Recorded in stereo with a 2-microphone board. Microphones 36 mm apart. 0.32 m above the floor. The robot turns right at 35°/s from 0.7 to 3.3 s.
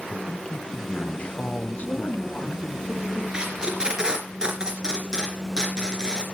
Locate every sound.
0.1 s a man speaking: 30° left, 1.4 m; by 2.8 s 105° left, 1.4 m
1.8 s a woman speaking: 120° left, 4 m; by 3.2 s 170° left, 4 m
3.3 s tape being pulled: 20° right (ahead or behind), 3 m